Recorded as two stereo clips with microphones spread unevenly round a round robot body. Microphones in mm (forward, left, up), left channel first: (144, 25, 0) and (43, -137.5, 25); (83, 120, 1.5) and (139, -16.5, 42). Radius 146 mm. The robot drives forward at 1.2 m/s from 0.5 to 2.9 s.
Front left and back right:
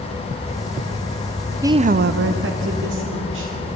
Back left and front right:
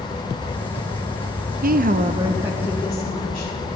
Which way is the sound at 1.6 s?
40° right.